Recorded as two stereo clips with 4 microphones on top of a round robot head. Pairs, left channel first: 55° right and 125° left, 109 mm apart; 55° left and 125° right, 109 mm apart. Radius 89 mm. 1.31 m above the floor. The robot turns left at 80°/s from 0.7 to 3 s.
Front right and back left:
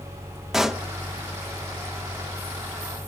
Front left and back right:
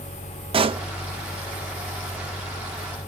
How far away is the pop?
About 0.5 m.